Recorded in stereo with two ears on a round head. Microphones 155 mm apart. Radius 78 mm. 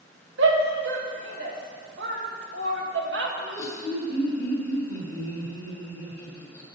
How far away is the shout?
About 1.9 m.